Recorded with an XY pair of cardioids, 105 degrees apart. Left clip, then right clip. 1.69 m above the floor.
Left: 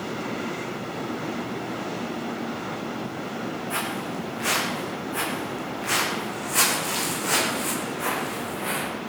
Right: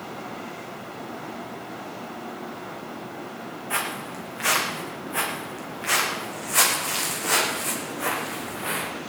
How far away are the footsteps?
About 7 m.